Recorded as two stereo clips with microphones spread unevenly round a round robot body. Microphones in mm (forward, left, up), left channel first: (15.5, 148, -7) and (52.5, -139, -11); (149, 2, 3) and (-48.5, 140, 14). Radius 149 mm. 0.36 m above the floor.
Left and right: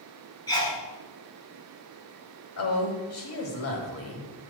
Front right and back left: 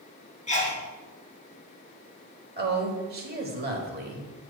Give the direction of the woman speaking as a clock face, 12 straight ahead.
8 o'clock.